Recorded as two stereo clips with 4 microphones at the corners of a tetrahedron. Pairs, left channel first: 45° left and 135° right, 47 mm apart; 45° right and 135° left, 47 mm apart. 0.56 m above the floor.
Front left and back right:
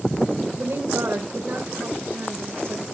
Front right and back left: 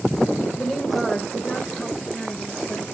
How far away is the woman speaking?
About 1.8 m.